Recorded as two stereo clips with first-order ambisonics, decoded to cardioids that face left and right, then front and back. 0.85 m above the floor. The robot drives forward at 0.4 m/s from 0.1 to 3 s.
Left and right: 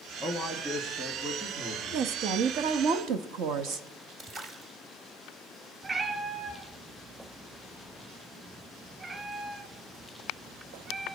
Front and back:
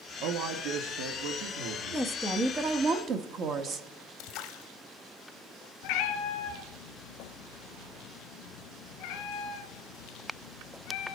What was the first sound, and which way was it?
A man speaking, 175° right.